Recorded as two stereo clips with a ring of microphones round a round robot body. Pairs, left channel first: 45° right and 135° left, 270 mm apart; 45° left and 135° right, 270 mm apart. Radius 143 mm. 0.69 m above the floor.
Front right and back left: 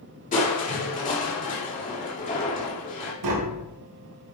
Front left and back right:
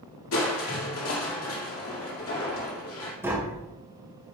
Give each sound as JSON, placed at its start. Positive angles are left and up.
{"t": 0.3, "sound": "crushing", "azimuth_deg": 15, "distance_m": 2.5}
{"t": 3.2, "sound": "tapping", "azimuth_deg": 145, "distance_m": 1.7}